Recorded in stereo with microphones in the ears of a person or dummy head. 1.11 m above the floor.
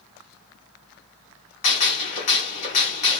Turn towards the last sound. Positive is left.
turn(degrees=35)  # may be behind; listen again after turning